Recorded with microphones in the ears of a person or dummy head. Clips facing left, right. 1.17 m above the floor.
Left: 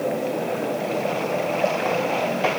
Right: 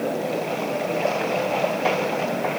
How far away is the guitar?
I don't hear a guitar.